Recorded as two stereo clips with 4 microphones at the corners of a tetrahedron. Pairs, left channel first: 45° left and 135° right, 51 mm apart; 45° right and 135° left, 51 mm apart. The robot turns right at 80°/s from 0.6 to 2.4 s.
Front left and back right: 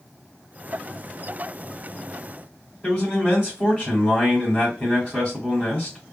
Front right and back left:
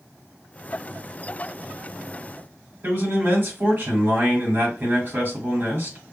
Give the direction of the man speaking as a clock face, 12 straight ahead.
8 o'clock.